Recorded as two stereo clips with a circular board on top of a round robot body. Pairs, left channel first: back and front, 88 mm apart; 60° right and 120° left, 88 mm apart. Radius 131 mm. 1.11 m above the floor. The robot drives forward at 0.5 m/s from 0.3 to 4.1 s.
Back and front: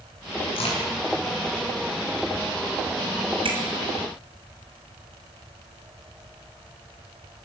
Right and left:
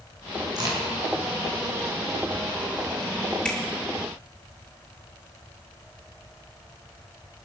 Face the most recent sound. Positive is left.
turn(degrees=20)